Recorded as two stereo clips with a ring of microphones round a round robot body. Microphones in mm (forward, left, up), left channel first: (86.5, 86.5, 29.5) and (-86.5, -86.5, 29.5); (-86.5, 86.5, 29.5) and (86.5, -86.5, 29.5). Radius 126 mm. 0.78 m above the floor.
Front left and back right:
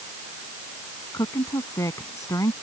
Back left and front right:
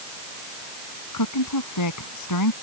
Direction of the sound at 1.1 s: 125° left.